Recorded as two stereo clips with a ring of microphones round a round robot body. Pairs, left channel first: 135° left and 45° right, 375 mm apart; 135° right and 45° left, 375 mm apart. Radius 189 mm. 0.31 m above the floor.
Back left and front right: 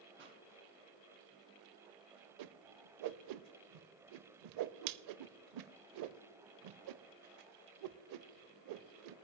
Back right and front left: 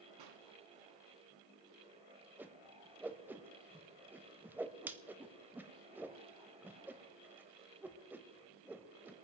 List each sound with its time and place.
0.2 s a pop: 15° left, 2.5 m
2.4 s a whoosh: 40° right, 0.6 m